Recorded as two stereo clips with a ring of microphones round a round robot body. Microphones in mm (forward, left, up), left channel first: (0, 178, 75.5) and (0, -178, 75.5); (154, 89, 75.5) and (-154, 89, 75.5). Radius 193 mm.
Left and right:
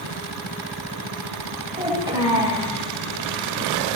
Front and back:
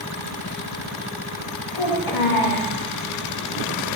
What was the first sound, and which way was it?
A child speaking, 10° right.